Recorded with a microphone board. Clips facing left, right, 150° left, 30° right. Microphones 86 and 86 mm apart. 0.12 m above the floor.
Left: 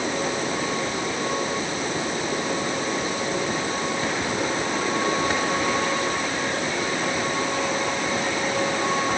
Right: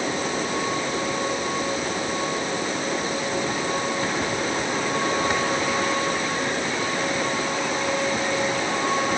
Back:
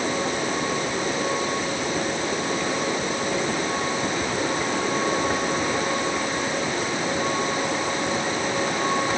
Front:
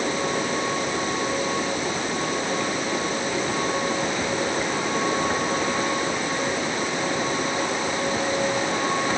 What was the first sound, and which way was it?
Only background noise.